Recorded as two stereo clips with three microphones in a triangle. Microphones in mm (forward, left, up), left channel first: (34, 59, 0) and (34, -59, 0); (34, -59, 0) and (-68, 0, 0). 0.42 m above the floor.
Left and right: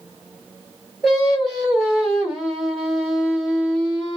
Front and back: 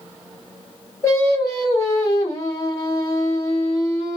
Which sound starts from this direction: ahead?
Singing, at 1.0 s.